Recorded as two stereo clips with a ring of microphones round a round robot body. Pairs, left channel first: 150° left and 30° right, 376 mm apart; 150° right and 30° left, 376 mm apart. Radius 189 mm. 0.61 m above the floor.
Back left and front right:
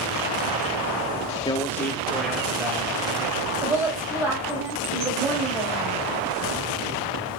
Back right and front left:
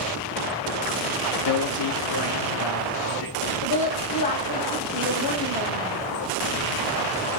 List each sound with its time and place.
1.4 s a man speaking: 135° right, 0.7 m; by 3.5 s 115° right, 3 m
3.6 s a woman speaking: 115° right, 3.5 m